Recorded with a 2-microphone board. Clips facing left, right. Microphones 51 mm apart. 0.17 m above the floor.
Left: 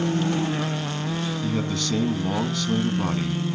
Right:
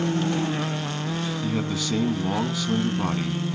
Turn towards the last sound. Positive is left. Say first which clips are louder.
# even
turn(degrees=-10)  # may be behind; listen again after turning